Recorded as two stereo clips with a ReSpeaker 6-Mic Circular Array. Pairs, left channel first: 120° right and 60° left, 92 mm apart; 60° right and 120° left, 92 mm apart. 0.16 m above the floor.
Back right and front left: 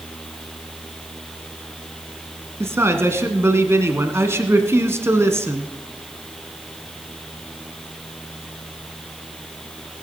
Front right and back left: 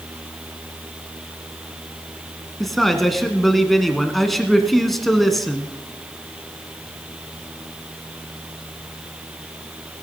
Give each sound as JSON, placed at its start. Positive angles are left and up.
{"t": 2.6, "sound": "a man speaking", "azimuth_deg": 25, "distance_m": 1.6}